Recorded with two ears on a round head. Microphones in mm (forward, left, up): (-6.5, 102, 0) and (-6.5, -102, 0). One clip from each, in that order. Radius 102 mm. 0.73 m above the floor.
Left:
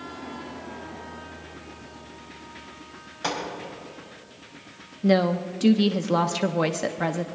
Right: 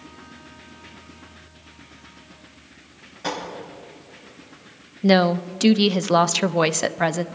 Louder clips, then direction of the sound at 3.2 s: Even; 35° left (ahead or behind).